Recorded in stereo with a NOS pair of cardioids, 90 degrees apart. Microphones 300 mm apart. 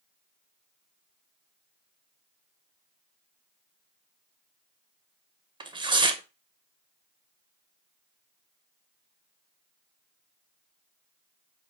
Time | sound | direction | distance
5.6 | tearing paper | 15° right | 0.7 m